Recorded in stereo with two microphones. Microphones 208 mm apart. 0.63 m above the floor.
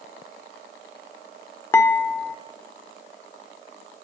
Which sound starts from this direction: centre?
Dishes clattering, at 1.7 s.